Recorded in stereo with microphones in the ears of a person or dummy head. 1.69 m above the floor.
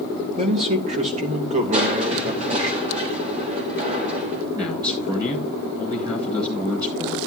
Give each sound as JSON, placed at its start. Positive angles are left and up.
{"t": 0.4, "sound": "a man speaking", "side_deg": -40, "distance_m": 2.5}
{"t": 1.7, "sound": "crushing", "side_deg": -40, "distance_m": 4.0}
{"t": 4.5, "sound": "a man speaking", "side_deg": -25, "distance_m": 8.0}